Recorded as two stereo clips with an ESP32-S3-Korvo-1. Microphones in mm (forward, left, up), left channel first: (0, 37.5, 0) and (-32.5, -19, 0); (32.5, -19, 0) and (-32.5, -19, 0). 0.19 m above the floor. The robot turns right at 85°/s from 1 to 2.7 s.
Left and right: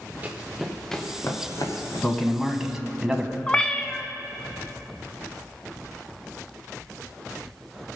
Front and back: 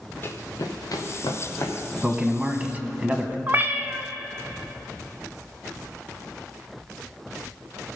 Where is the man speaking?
115° left, 1.0 m; by 3.4 s 170° left, 1.0 m.